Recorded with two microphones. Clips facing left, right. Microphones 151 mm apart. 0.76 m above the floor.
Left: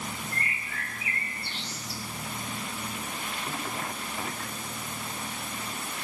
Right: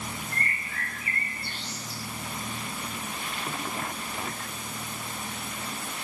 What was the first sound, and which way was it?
A bird, 45° right (ahead or behind).